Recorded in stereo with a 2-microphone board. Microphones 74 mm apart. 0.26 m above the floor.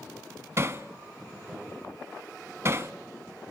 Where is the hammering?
35° right (ahead or behind), 0.7 m.